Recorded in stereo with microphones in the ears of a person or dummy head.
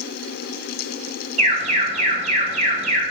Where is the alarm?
40° right (ahead or behind), 2.5 m.